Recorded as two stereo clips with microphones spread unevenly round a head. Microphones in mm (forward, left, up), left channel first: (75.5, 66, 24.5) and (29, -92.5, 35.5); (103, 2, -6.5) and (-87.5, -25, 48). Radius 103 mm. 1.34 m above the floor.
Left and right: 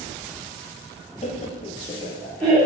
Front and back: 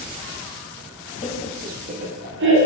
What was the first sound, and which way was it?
Laughter, 35° left.